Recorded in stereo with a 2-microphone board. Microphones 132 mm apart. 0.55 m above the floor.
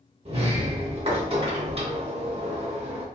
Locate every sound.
0.2 s a sliding door: 45° right (ahead or behind), 0.7 m